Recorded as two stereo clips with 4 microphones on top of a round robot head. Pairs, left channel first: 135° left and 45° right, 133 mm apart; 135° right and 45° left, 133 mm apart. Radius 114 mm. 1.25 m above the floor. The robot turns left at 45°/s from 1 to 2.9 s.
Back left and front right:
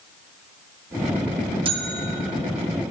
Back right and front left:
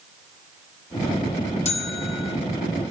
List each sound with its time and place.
1.6 s a bell: 95° right, 0.8 m; by 2.4 s 125° right, 0.8 m